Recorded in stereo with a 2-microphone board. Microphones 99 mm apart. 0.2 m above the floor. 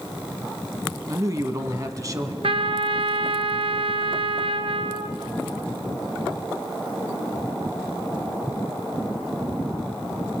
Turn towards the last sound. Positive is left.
turn(degrees=-80)